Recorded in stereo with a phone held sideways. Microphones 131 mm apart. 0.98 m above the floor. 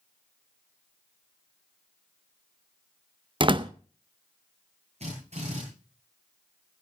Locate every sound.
3.4 s a door slam: 40° right (ahead or behind), 0.6 m
5.0 s a drill: 55° right (ahead or behind), 9 m